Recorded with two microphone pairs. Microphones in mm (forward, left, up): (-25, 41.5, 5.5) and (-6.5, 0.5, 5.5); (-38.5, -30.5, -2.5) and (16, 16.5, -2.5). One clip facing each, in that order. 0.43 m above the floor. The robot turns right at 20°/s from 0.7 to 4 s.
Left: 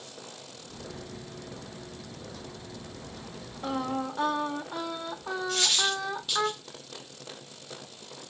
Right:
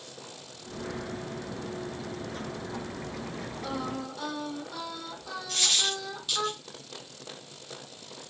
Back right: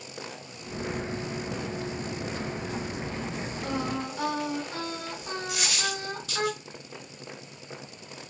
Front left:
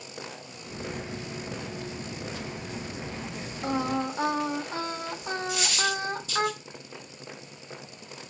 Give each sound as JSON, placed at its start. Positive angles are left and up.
{"t": 3.6, "sound": "singing", "azimuth_deg": 80, "distance_m": 0.6}
{"t": 5.5, "sound": "a dropped coin", "azimuth_deg": -160, "distance_m": 1.5}